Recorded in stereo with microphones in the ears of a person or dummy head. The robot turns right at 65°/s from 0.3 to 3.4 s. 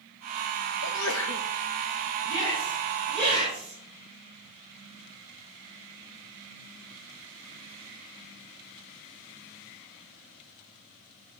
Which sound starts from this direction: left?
A sneeze, at 0.8 s.